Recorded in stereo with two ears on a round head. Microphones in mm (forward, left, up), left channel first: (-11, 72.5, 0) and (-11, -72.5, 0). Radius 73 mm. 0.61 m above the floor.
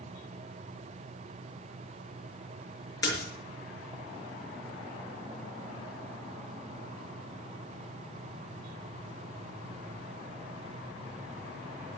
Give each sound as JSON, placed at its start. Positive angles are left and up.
{"t": 3.0, "sound": "a splash", "side_deg": 25, "distance_m": 5.0}